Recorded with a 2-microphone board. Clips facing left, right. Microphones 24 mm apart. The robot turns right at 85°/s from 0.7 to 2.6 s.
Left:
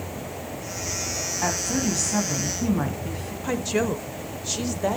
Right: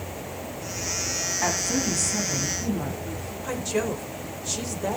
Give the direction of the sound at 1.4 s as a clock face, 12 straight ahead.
1 o'clock.